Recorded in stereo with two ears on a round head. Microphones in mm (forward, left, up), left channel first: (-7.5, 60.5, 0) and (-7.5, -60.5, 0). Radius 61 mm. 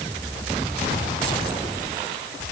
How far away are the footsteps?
No footsteps in this recording.